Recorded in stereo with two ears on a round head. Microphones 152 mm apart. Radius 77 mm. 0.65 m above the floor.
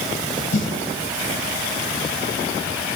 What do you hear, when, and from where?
0.5 s a snare drum: 80° left, 1.8 m